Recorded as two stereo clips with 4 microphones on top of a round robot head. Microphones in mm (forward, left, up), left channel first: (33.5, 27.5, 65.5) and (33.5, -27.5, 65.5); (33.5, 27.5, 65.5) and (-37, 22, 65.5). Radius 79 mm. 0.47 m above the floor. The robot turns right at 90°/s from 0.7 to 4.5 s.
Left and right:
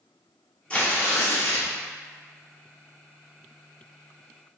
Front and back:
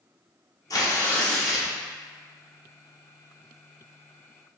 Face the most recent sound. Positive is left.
turn(degrees=10)